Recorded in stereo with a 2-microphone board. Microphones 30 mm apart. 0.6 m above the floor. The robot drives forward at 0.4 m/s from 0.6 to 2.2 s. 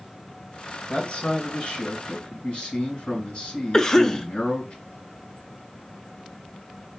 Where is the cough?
20° left (ahead or behind), 0.6 m.